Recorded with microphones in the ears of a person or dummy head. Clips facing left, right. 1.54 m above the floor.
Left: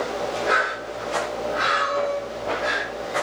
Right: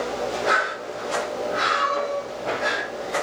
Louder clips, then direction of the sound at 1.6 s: Left 1 dB; 15° left (ahead or behind).